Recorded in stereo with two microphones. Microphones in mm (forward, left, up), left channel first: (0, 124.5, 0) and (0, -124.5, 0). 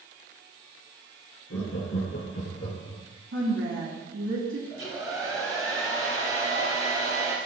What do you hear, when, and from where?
1.5 s laughter: 75° left (ahead or behind), 3.5 m
3.3 s a woman speaking: 65° right (ahead or behind), 3 m
4.7 s a hair dryer: 60° left (ahead or behind), 1.6 m